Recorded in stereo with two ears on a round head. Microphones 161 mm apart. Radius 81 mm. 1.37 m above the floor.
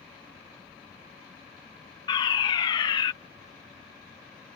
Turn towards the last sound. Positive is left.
turn(degrees=25)  # may be behind; listen again after turning